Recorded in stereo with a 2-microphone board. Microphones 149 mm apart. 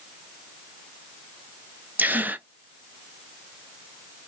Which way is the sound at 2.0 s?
10° right (ahead or behind).